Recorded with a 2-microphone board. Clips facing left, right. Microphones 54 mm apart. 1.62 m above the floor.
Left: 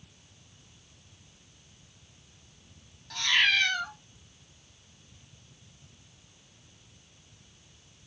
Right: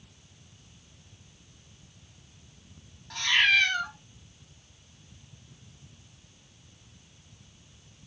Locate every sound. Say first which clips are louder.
3.1 s a cat meowing: right 2 dB; 15° right (ahead or behind), 1.2 m